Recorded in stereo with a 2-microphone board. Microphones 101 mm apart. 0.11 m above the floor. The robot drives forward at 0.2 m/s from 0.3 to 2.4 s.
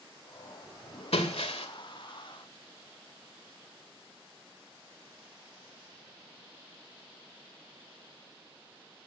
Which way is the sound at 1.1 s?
85° left.